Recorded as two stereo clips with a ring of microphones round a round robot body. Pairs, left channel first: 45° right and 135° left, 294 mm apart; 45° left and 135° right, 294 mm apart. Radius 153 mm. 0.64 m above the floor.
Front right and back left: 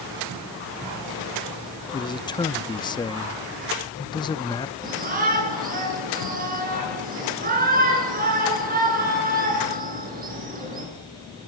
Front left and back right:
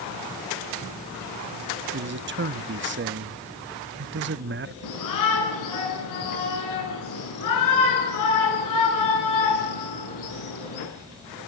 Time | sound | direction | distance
1.9 | a man speaking | 110° right | 0.8 m
4.8 | a shout | 70° left | 8 m